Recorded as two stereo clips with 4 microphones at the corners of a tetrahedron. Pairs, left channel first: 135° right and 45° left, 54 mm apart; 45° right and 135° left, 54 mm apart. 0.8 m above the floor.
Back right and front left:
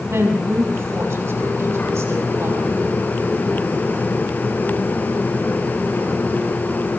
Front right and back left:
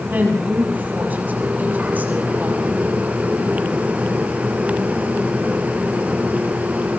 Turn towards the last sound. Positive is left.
turn(degrees=80)